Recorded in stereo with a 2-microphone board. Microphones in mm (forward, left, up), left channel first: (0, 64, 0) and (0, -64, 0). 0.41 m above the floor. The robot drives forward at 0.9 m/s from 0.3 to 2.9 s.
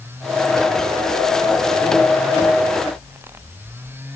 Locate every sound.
Only background noise.